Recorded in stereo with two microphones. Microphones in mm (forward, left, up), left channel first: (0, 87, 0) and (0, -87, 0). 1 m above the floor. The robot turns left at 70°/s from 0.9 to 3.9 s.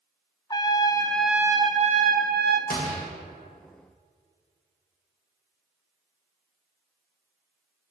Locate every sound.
0.5 s a trumpet: 25° left, 0.5 m; by 2.6 s 95° right, 0.5 m
2.7 s a gunshot: 55° left (ahead or behind), 1.5 m; by 3.0 s 35° left (ahead or behind), 1.5 m